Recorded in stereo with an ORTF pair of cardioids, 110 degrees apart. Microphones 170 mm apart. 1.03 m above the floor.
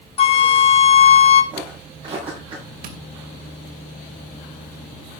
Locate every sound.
0.2 s a flute: 35° left, 2 m
1.5 s footsteps: 30° right, 9.5 m
2.8 s tapping: 60° right, 2.5 m